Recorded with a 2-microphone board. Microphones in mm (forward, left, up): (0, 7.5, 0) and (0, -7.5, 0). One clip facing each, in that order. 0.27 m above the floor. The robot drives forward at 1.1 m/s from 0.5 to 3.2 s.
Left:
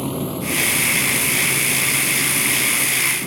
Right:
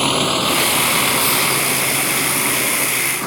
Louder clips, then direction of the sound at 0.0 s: Right 8 dB; 70° right (ahead or behind).